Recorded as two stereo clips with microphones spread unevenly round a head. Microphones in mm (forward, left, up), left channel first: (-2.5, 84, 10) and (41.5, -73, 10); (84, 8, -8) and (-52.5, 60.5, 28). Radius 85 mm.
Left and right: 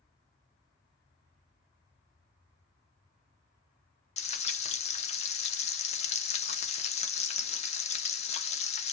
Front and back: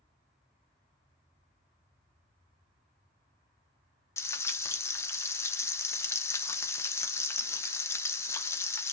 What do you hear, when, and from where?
4.2 s frying: 55° left, 0.6 m